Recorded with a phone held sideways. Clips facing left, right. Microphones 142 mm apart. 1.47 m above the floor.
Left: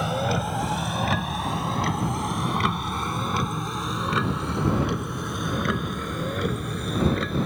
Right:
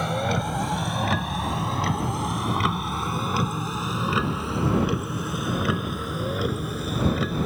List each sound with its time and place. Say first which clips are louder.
0.0 s a vehicle: even; centre (ahead or behind); by 7.5 s 5° right (ahead or behind)